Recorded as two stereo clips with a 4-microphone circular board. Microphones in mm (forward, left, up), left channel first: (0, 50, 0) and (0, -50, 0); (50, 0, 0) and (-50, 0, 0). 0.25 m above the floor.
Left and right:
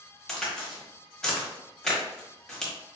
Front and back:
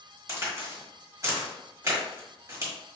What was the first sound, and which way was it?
A crack, 165° left.